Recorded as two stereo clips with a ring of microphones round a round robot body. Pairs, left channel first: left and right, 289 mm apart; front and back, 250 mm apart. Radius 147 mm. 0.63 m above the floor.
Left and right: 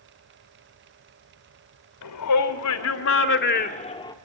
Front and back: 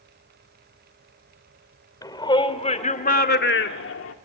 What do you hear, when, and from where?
2.0 s a shout: 75° left, 3 m; by 4.2 s 15° left, 2 m